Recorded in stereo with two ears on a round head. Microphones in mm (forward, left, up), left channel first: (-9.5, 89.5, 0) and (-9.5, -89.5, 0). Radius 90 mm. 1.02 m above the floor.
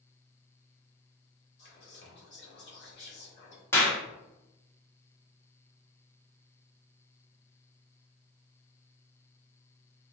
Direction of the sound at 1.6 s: 60° left (ahead or behind).